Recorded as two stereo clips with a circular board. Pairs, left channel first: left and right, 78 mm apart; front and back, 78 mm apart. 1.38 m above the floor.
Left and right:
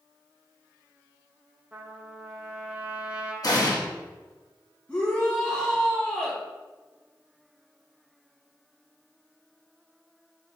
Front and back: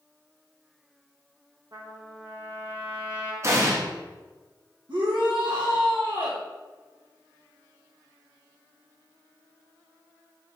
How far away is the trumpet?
About 1.5 m.